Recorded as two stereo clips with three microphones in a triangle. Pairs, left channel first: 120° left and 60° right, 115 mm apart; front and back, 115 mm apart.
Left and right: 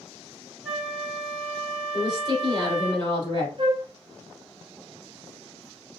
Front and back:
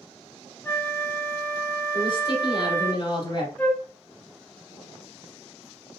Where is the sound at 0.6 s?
5° left, 0.9 m.